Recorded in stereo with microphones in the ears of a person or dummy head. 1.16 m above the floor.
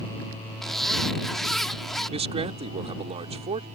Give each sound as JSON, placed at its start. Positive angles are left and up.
{"t": 0.6, "sound": "a zipper", "side_deg": 5}
{"t": 2.1, "sound": "a man speaking", "side_deg": -30}